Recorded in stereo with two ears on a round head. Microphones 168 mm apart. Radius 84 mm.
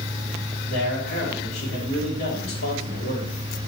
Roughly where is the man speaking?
Left.